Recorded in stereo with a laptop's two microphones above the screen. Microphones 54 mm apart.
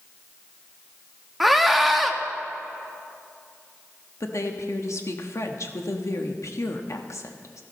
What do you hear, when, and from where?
1.4 s a scream: centre (ahead or behind), 1.4 m
4.2 s a woman speaking: 65° left (ahead or behind), 1.3 m